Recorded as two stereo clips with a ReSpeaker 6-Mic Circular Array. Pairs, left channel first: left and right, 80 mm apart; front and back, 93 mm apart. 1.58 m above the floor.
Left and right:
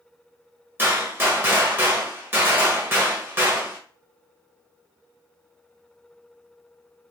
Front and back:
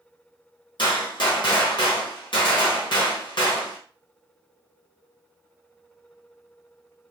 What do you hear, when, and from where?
0.8 s a gunshot: 30° right, 1.2 m